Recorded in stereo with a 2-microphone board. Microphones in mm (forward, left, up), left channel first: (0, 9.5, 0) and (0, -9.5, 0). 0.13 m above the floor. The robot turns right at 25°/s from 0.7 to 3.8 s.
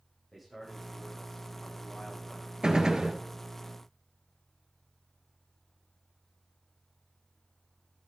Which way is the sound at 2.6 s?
45° right (ahead or behind).